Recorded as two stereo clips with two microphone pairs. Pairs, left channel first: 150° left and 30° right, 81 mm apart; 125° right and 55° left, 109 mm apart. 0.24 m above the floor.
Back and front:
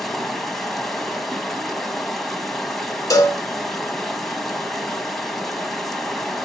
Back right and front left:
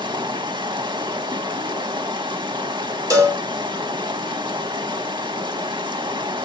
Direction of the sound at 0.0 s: 65° left.